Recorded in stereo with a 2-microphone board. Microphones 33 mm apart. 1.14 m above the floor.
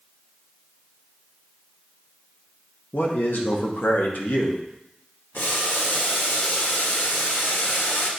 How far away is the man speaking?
About 1.3 m.